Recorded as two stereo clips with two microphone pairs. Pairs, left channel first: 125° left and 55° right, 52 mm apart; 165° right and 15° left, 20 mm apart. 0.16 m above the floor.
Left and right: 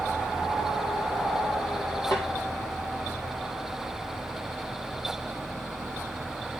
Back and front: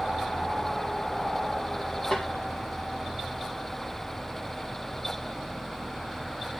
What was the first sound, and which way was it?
A snare drum, 160° left.